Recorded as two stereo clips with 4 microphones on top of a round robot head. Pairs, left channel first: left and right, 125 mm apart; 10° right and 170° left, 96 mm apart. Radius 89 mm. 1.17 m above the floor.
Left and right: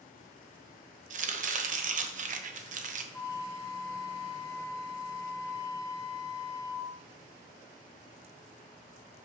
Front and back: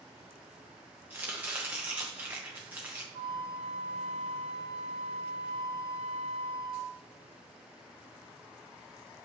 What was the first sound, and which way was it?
Chopping, 115° right.